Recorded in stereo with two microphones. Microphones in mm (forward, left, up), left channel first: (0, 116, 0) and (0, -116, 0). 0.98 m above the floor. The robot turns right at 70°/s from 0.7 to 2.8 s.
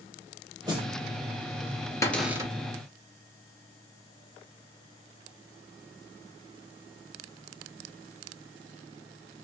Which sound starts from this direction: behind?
A cupboard door, at 2.0 s.